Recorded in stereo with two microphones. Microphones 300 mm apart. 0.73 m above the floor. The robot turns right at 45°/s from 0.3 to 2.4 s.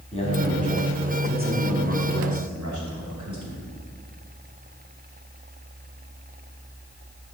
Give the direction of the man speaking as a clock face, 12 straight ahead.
7 o'clock.